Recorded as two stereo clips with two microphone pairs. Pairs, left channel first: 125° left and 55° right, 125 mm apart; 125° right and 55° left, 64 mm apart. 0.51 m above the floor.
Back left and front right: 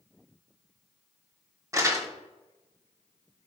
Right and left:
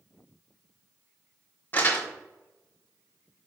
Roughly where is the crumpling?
Right.